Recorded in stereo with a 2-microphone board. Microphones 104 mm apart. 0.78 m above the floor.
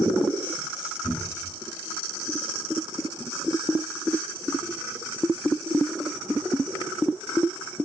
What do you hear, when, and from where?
1.0 s a cupboard door: 55° left (ahead or behind), 2.5 m